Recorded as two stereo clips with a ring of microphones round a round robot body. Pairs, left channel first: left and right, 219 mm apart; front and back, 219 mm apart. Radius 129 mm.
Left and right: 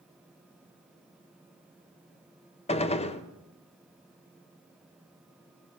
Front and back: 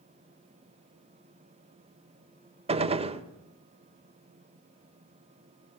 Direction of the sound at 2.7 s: 135° left.